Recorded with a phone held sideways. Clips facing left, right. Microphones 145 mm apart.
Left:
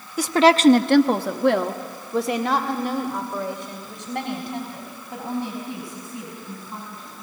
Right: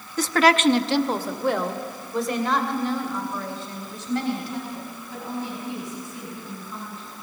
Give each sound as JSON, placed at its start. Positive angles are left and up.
{"t": 0.2, "sound": "a woman speaking", "side_deg": 10, "distance_m": 0.8}